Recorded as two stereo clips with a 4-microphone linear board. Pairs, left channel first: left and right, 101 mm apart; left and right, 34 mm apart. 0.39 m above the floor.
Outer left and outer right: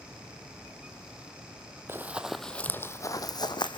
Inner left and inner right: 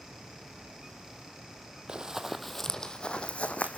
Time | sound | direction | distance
1.9 | running footsteps | 25° right (ahead or behind) | 0.9 m